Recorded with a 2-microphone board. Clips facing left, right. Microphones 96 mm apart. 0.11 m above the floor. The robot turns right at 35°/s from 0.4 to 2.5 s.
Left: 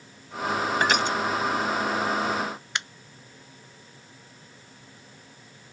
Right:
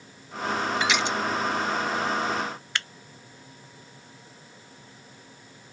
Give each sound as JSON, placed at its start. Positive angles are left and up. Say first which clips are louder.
{"t": 0.8, "sound": "crushing", "louder": "left 2 dB", "side_deg": 45}
{"t": 2.8, "sound": "a finger snap", "louder": "even", "side_deg": 20}